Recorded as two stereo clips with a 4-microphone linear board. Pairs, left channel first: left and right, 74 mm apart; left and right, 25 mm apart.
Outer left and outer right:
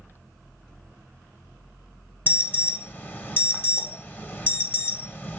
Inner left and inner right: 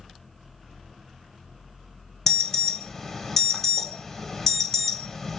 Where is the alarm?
25° left (ahead or behind), 0.9 m.